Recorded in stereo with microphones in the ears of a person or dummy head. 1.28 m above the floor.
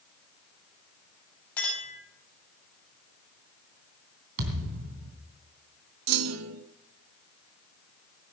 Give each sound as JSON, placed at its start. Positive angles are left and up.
{"t": 1.6, "sound": "a clink", "side_deg": 5, "distance_m": 7.0}
{"t": 4.4, "sound": "a thud", "side_deg": -70, "distance_m": 3.0}
{"t": 6.1, "sound": "a clunk", "side_deg": -85, "distance_m": 0.7}